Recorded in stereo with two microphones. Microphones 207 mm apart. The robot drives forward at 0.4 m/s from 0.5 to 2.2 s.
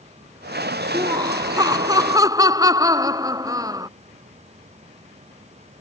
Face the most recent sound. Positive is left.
turn(degrees=-15)  # may be behind; listen again after turning